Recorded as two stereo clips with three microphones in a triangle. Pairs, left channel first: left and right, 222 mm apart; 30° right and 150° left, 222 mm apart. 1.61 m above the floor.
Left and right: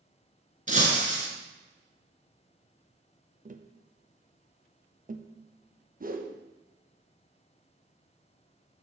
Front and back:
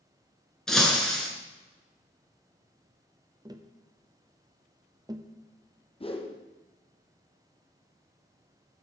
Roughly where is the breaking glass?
Behind right.